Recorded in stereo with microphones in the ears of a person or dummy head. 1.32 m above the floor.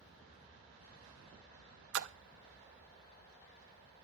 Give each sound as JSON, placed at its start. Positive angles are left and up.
{"t": 1.9, "sound": "a splash", "side_deg": -75, "distance_m": 0.7}